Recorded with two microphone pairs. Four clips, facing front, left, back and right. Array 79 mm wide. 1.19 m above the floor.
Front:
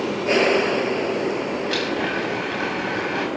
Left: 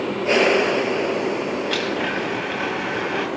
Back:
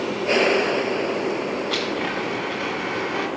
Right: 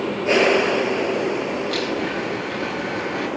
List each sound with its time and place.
1.7 s a blender: 45° left, 7 m